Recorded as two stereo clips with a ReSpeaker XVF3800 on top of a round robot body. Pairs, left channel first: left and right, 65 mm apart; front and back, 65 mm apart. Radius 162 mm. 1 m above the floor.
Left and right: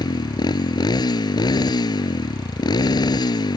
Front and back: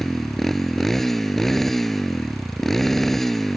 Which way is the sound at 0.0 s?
85° left.